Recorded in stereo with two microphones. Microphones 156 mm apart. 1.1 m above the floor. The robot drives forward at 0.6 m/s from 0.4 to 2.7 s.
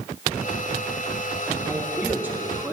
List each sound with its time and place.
1.7 s a man speaking: 10° right (ahead or behind), 4 m